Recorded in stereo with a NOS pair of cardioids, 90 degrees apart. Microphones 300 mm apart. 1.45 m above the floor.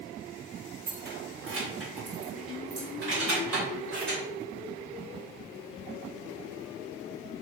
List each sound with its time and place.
0.9 s keys jangling: 30° right, 1.0 m; by 4.2 s 60° right, 3.5 m